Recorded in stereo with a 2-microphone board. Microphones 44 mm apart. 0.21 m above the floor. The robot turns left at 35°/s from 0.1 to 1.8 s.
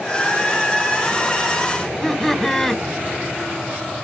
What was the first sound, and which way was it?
Laughter, 10° left (ahead or behind).